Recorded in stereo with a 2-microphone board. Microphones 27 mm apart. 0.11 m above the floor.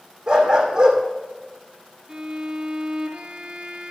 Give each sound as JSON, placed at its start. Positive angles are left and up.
{"t": 0.3, "sound": "a dog barking", "side_deg": -25, "distance_m": 2.5}
{"t": 2.1, "sound": "a violin", "side_deg": -30, "distance_m": 1.6}